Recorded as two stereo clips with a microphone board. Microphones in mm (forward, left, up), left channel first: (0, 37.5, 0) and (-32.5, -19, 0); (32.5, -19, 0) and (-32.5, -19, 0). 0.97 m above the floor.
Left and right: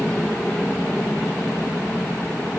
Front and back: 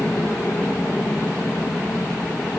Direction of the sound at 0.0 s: 10° left.